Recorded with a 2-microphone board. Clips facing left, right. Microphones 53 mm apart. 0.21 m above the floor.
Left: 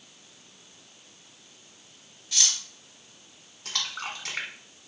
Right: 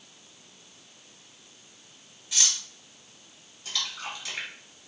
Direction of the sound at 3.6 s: 55° left (ahead or behind).